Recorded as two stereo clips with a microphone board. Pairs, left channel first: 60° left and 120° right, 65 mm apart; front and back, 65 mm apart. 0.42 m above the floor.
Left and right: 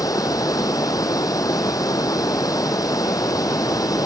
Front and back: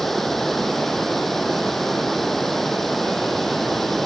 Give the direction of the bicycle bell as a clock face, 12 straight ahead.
No bicycle bell in this recording.